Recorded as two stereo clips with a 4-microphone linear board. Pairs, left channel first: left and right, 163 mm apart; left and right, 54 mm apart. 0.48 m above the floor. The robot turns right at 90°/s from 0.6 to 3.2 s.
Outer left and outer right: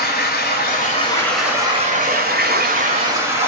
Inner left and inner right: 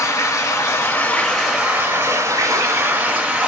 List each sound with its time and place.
0.0 s running water: 110° left, 1.0 m; by 3.5 s 15° right, 1.0 m